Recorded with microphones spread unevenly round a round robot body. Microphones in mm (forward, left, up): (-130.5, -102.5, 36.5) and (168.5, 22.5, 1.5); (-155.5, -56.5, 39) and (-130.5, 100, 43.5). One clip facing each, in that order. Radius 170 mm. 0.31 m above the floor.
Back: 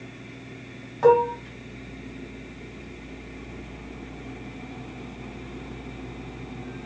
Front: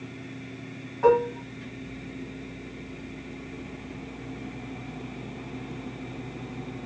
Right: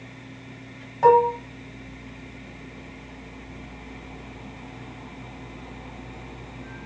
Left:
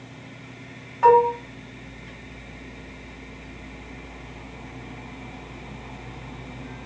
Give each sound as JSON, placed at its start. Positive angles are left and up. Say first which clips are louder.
{"t": 1.0, "sound": "dishes clattering", "louder": "back 3 dB, left 1 dB", "azimuth_deg": -145, "distance_m": 1.7}